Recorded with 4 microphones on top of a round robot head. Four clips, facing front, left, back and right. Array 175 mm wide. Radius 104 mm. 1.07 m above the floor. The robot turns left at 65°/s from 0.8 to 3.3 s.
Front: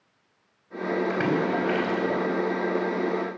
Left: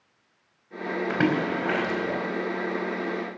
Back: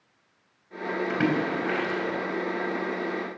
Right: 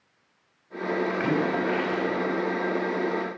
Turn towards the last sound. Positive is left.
turn(degrees=-30)